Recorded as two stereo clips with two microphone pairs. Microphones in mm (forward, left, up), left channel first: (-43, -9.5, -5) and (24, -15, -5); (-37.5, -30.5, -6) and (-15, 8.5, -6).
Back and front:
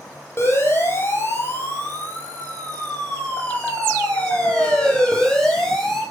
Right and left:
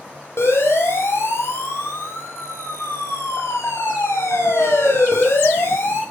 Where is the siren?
130° right, 9 m; by 6.0 s 100° right, 9 m.